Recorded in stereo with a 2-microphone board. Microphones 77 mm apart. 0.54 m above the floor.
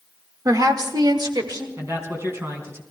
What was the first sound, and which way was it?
A woman speaking, 45° right (ahead or behind).